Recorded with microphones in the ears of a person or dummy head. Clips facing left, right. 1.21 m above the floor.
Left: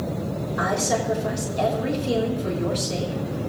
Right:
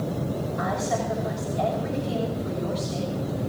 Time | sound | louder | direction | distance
0.6 | a woman speaking | left 5 dB | 70° left (ahead or behind) | 4.5 m